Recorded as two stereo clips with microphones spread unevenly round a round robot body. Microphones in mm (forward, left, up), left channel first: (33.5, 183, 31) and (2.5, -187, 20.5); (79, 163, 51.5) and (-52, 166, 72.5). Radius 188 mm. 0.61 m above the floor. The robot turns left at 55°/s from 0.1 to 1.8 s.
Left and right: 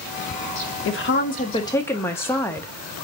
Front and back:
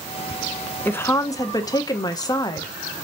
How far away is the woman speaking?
About 0.6 m.